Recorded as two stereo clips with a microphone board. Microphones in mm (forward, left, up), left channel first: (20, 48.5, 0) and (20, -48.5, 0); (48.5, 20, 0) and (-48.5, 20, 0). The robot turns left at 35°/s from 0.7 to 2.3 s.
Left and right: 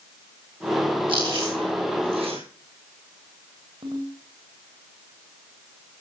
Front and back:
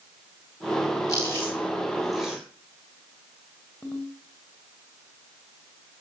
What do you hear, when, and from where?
1.1 s chewing: 55° right, 6.5 m; by 2.4 s 95° right, 6.5 m
3.8 s a ringtone: 75° right, 4.5 m